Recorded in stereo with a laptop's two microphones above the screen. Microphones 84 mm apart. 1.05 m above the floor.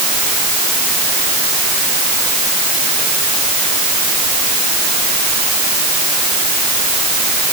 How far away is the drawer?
I don't hear a drawer.